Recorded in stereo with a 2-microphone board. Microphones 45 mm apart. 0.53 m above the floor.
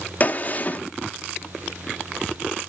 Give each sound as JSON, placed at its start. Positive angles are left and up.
{"t": 0.2, "sound": "a gunshot", "side_deg": 35, "distance_m": 1.4}